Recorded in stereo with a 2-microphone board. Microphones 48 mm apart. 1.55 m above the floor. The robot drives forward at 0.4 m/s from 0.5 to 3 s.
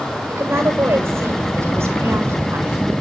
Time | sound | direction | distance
0.3 | a woman speaking | 65° right (ahead or behind) | 6.5 m